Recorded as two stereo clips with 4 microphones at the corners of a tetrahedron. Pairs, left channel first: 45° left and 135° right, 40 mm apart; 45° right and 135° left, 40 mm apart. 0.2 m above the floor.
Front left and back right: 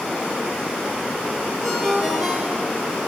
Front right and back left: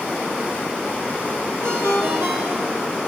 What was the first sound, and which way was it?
A ringtone, 130° left.